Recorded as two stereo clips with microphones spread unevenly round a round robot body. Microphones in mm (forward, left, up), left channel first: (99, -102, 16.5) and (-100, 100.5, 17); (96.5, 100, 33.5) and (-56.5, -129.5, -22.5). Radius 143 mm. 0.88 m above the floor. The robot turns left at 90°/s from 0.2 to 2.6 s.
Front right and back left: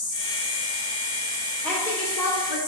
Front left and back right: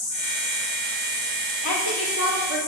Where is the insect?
15° right, 2 m; by 2.7 s 130° left, 2 m.